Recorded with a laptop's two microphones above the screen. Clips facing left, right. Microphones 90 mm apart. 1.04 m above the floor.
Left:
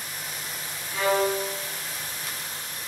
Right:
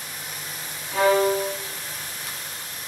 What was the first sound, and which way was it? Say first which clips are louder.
A violin: right 5 dB; 90° right.